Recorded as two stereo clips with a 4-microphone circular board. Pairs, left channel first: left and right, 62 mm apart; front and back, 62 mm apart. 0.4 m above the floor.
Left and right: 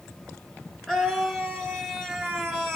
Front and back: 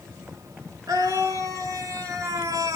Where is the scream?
175° left, 4.5 m.